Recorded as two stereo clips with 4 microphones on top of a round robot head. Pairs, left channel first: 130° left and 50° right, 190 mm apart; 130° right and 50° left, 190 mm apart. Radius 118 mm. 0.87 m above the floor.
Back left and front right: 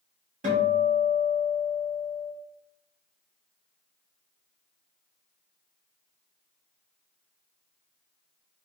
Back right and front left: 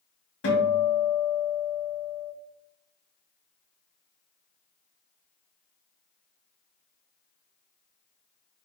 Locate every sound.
0.4 s a guitar: 100° right, 4 m